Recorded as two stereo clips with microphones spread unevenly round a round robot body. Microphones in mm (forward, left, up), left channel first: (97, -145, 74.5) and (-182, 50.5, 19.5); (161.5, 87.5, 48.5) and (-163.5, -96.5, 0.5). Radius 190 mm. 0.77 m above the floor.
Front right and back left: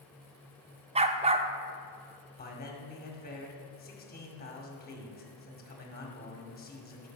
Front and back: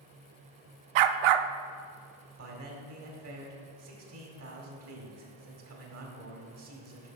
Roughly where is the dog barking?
Behind right.